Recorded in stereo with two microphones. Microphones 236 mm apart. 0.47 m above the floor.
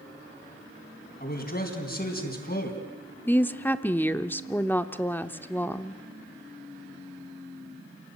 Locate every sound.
1.2 s a man speaking: 40° left (ahead or behind), 3.5 m
3.3 s a woman speaking: 10° left (ahead or behind), 0.7 m